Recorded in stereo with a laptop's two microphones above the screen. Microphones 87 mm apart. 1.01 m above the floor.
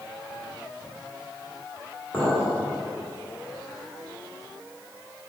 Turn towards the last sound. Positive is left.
turn(degrees=30)  # may be behind; listen again after turning